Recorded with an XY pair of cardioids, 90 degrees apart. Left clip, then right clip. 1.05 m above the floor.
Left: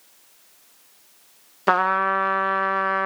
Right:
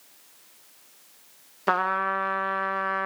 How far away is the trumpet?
About 0.9 m.